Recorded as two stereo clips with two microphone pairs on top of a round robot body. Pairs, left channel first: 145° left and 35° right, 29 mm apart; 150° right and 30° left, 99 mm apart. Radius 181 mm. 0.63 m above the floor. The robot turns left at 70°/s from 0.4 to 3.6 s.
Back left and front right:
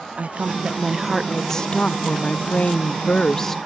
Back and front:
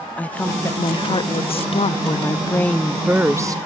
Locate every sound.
0.2 s a woman speaking: 70° right; by 3.6 s 70° left